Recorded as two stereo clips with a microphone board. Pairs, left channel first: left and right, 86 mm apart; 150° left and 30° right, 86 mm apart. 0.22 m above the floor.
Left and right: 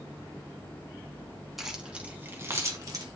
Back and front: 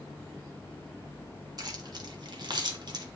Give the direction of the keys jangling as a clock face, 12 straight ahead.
12 o'clock.